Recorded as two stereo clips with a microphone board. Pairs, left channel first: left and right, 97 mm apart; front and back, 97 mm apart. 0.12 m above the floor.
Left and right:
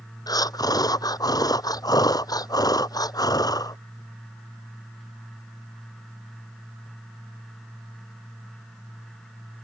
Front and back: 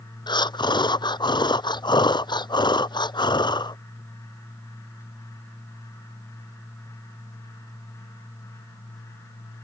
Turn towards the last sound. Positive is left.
turn(degrees=40)